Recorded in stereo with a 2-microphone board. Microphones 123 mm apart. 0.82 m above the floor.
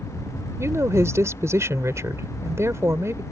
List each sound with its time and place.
0.6 s a woman speaking: 20° right (ahead or behind)